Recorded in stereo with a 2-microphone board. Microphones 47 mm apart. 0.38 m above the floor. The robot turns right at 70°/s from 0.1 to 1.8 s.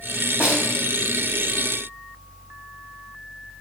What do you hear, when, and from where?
0.4 s a snare drum: 30° right (ahead or behind), 2.5 m; by 0.7 s 10° right (ahead or behind), 2.5 m